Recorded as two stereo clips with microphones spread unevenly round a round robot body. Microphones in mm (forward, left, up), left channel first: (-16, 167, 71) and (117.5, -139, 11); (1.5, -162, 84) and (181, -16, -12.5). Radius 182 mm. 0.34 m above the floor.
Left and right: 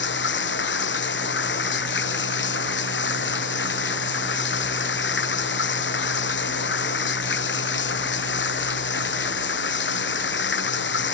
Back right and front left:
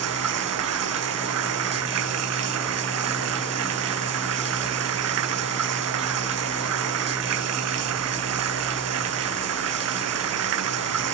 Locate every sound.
0.0 s running water: 55° left